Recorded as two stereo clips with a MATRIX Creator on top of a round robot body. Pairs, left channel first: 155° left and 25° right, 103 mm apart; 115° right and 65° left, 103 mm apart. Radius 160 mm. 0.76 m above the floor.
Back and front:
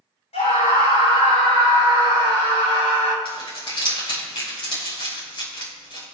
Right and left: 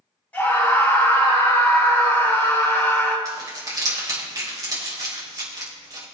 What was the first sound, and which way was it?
A scream, 170° left.